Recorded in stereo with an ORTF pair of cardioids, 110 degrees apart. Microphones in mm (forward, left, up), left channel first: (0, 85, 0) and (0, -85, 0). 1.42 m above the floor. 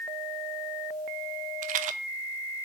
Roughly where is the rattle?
Ahead right.